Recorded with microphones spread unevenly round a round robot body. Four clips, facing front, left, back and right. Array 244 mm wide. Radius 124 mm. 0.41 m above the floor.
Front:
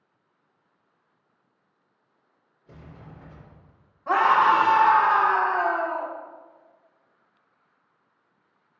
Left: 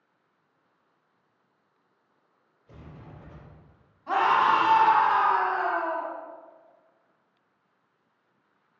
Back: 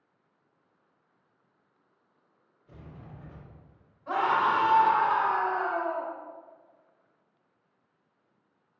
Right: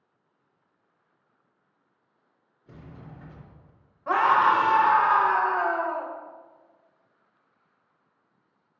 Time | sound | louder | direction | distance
2.7 | a sliding door | right 1 dB, front 2 dB | 70° right | 3 m
4.1 | a scream | right 2 dB, front 7 dB | 55° right | 2 m